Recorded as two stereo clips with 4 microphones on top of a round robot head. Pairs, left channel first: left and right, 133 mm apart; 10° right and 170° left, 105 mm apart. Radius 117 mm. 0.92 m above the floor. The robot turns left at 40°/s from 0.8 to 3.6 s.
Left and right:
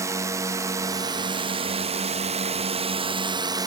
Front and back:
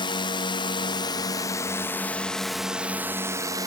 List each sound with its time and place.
0.0 s a drone: 30° right; by 3.7 s 140° right